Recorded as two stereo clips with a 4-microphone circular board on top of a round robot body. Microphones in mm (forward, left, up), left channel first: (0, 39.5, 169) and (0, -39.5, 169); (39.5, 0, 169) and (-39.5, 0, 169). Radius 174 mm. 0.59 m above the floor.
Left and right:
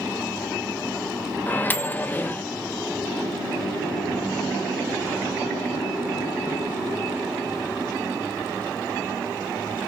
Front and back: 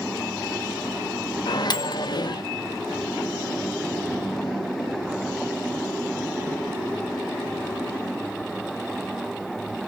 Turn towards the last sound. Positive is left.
turn(degrees=25)